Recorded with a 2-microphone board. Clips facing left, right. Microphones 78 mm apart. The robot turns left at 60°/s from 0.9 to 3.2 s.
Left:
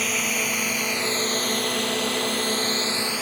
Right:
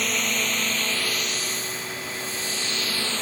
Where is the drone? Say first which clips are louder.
Even; 5° left (ahead or behind).